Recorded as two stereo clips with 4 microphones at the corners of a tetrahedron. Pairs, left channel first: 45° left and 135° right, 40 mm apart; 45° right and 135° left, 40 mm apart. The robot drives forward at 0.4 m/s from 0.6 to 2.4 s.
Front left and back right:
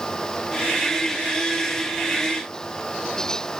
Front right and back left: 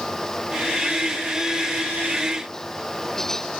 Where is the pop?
No pop in this recording.